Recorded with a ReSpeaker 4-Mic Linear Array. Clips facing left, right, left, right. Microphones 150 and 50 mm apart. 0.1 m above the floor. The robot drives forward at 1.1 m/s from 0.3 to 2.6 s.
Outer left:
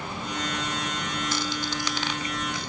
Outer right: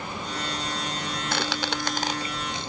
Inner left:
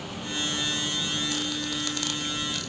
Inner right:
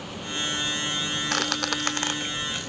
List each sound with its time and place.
1.3 s a squeak: 60° right (ahead or behind), 0.6 m; by 2.7 s 25° right (ahead or behind), 1.2 m